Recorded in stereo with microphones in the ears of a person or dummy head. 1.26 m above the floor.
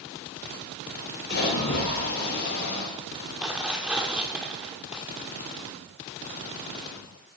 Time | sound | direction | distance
1.3 | a splash | 60° left (ahead or behind) | 4 m
3.4 | tearing paper | 5° right (ahead or behind) | 1.1 m